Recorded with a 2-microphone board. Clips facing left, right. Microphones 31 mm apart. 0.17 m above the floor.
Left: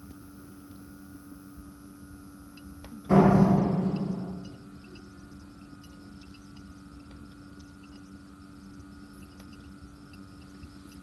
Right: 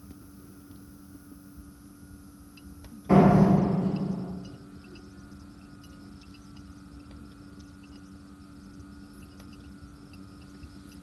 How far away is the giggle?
No giggle in this recording.